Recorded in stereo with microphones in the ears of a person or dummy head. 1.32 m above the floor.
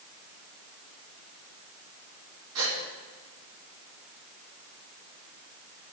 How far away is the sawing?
No sawing in this recording.